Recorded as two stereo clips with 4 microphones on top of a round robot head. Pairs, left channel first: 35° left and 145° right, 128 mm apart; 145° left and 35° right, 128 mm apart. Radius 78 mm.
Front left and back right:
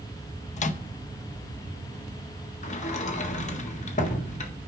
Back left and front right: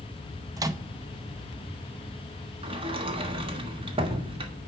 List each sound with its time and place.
0.6 s a microwave: 25° left, 0.7 m
2.6 s a sliding door: 10° left, 1.4 m